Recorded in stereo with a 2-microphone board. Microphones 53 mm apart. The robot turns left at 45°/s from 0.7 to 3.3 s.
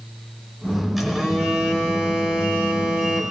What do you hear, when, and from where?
1.0 s a phone buzzing: 5° right (ahead or behind), 1.5 m; by 3.3 s 20° right (ahead or behind), 1.5 m